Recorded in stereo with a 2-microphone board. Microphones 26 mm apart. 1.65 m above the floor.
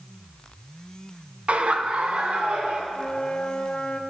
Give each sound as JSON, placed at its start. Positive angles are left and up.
{"t": 1.5, "sound": "laughter", "side_deg": -50, "distance_m": 1.2}
{"t": 2.9, "sound": "a flute", "side_deg": 45, "distance_m": 1.1}